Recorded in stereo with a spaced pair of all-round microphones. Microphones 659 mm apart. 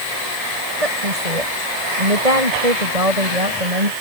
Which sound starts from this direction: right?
A woman speaking, at 0.8 s.